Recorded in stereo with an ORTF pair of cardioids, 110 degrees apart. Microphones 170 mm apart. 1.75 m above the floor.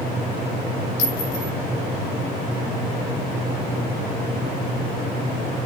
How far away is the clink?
About 5 m.